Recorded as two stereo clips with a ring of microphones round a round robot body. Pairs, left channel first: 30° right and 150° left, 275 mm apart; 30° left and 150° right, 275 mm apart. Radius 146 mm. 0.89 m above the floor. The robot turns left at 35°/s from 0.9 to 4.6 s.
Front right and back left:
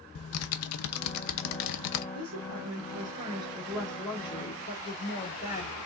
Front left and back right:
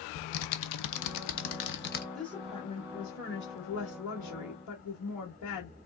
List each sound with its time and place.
0.1 s typing on a keyboard: 10° left, 0.7 m; by 2.0 s 30° right, 0.7 m
2.1 s a woman speaking: 120° left, 1.9 m; by 5.8 s 35° left, 1.9 m